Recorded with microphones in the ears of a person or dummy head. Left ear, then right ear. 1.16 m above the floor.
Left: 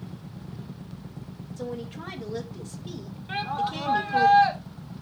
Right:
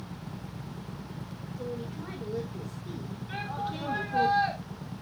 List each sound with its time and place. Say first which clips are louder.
1.6 s a woman speaking: left 3 dB; 40° left (ahead or behind), 2 m; by 4.3 s 30° left (ahead or behind), 0.7 m
3.3 s a shout: left 7 dB; 35° left (ahead or behind), 1.9 m